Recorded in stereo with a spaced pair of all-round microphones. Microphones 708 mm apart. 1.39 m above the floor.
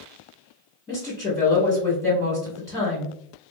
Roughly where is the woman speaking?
Centre.